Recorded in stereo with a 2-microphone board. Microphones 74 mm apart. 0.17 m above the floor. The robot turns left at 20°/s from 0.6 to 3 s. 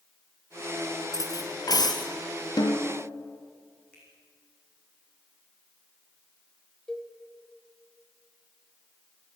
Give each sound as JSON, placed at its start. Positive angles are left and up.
{"t": 1.1, "sound": "cutlery clinking", "side_deg": 50, "distance_m": 2.0}
{"t": 2.6, "sound": "a snare drum", "side_deg": 60, "distance_m": 2.0}
{"t": 3.9, "sound": "a finger snap", "side_deg": 10, "distance_m": 8.0}
{"t": 6.9, "sound": "a cowbell", "side_deg": 10, "distance_m": 2.0}